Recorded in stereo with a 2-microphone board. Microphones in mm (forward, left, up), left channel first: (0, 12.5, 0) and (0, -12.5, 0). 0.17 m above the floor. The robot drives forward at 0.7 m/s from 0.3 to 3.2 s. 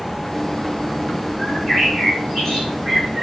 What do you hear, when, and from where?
1.4 s a bird: 20° left (ahead or behind), 3 m; by 3.2 s 15° left (ahead or behind), 4 m